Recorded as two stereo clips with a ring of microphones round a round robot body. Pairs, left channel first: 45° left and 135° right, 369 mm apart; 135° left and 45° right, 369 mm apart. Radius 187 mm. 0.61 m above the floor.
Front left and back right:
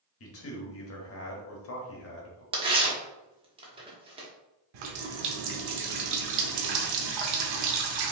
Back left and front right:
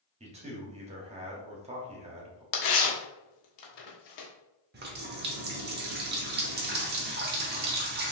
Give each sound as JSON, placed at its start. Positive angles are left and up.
{"t": 0.2, "sound": "a man speaking", "azimuth_deg": 20, "distance_m": 1.3}
{"t": 2.5, "sound": "tearing paper", "azimuth_deg": 150, "distance_m": 1.1}
{"t": 4.7, "sound": "a running tap", "azimuth_deg": -110, "distance_m": 1.0}